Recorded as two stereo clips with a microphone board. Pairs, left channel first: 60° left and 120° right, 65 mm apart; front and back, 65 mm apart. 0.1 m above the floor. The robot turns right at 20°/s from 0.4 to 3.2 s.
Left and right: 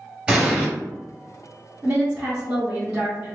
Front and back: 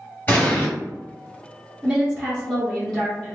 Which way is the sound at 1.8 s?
95° right.